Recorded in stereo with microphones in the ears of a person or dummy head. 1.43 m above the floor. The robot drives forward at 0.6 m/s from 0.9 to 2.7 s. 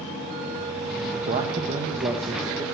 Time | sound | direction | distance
1.3 | a man speaking | 40° right (ahead or behind) | 0.8 m